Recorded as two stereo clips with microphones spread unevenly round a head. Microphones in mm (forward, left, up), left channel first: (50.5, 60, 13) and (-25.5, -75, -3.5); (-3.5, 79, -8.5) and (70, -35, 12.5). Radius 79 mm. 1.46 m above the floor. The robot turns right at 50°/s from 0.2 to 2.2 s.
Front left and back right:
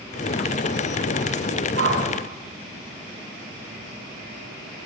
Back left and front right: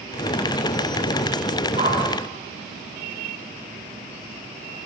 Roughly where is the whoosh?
Behind right.